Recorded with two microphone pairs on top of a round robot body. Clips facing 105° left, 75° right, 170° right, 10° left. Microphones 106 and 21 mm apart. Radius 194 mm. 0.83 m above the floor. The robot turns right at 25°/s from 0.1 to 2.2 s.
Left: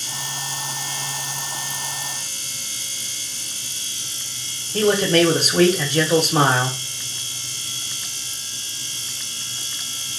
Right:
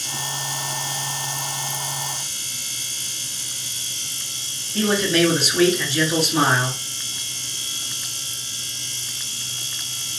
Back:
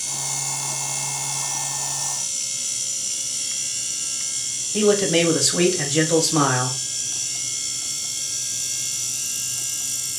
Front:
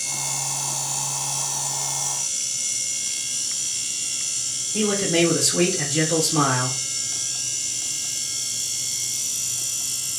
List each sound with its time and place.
4.7 s a man speaking: 115° left, 1.1 m